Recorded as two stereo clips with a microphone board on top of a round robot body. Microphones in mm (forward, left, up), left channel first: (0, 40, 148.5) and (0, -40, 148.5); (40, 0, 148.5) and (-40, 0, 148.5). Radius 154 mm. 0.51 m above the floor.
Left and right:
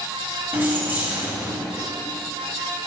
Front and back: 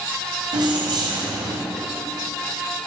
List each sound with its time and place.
0.5 s keys jangling: 155° right, 2.5 m